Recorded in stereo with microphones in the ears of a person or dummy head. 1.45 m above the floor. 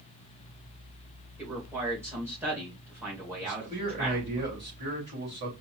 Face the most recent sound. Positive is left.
turn(degrees=-30)  # may be behind; listen again after turning